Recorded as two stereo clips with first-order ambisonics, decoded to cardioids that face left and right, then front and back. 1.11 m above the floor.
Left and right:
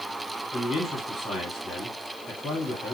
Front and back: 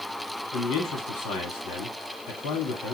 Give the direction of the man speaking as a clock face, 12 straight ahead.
11 o'clock.